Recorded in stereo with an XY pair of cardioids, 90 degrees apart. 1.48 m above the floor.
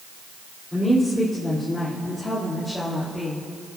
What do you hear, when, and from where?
0.7 s a woman speaking: 20° left, 4.5 m; by 3.4 s 15° left, 3 m